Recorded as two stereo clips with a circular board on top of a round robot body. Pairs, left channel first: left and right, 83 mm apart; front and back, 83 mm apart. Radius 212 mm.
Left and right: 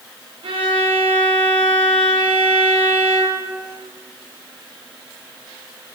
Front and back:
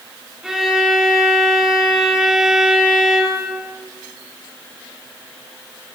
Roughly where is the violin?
Right.